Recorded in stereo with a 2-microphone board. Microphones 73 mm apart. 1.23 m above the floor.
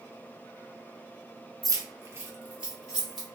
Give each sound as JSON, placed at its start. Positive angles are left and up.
{"t": 1.6, "sound": "keys jangling", "side_deg": -55, "distance_m": 0.6}